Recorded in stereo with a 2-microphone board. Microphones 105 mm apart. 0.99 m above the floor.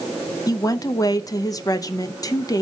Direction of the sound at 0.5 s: 30° left (ahead or behind).